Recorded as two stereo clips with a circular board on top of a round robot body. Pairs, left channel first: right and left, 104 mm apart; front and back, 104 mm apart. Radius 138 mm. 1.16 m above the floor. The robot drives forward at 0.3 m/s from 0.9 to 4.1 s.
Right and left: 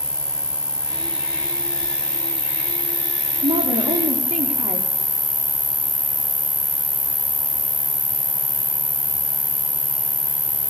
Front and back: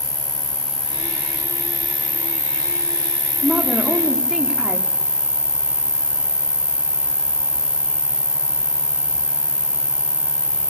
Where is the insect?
30° left, 1.8 m; by 10.7 s 70° left, 1.4 m.